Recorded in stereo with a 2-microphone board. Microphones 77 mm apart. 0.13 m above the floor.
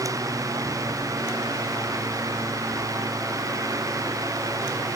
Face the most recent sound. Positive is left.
No sound to turn to.